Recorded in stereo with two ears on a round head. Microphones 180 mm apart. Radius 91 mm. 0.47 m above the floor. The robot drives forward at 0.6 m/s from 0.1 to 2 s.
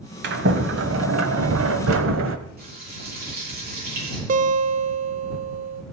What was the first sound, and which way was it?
A sliding door, 55° right (ahead or behind).